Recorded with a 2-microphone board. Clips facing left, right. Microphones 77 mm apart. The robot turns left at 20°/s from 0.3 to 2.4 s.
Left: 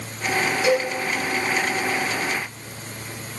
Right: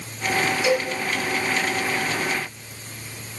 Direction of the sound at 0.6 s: 40° left (ahead or behind).